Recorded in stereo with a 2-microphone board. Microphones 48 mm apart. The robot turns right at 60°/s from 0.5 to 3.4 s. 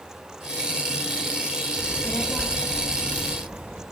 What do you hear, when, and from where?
1.8 s a child speaking: 130° left, 0.7 m; by 3.8 s 135° right, 0.7 m